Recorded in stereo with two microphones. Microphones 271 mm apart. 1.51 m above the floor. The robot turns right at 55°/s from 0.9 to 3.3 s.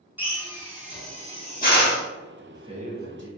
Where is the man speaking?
175° right, 0.8 m; by 3.3 s 125° right, 0.8 m.